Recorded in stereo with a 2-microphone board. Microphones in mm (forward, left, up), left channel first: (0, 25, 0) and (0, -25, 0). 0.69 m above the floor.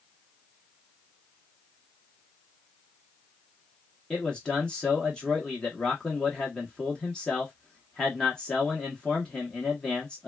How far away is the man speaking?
About 0.9 m.